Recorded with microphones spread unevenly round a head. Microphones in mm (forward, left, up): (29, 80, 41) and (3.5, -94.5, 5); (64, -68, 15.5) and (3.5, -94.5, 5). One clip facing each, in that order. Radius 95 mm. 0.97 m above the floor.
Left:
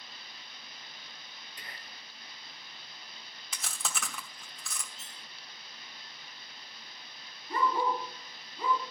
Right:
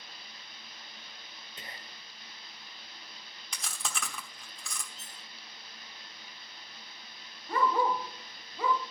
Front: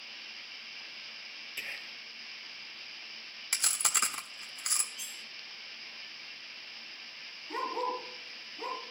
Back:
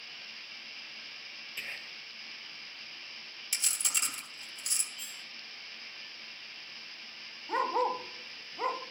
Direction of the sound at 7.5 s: 135° right.